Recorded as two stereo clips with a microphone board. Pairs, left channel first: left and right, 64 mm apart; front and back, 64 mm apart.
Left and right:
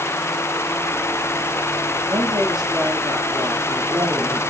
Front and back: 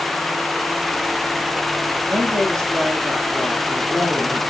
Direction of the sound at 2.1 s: 80° right.